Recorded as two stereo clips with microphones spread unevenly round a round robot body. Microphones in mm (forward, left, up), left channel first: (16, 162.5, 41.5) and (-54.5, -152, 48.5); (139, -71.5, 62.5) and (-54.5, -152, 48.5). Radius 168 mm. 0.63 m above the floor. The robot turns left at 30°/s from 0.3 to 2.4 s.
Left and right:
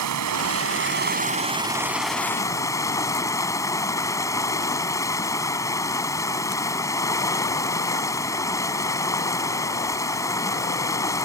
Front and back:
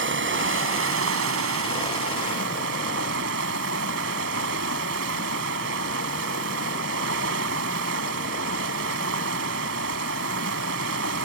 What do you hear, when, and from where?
0.0 s running water: 140° right; by 11.2 s 160° left